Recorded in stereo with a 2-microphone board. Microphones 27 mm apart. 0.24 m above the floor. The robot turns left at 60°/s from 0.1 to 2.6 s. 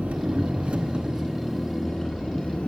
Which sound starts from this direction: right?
An engine running, at 0.0 s.